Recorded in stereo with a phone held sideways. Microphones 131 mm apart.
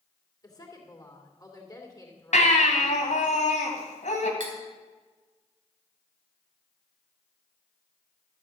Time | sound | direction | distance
0.4 | a woman speaking | 30° left (ahead or behind) | 2.5 m
2.3 | a baby crying | 75° left (ahead or behind) | 2.5 m
4.4 | cutlery clinking | 90° right | 3.5 m